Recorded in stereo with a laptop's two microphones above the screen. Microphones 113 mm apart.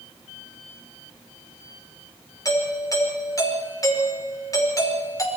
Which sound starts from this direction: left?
A doorbell, at 2.5 s.